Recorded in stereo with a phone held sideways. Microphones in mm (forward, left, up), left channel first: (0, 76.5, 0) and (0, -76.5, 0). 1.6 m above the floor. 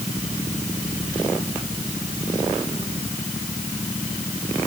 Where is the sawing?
I don't hear sawing.